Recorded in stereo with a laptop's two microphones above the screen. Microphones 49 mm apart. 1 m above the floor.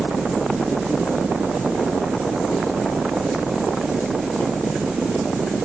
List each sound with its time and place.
0.0 s a fan: 45° right (ahead or behind), 1.7 m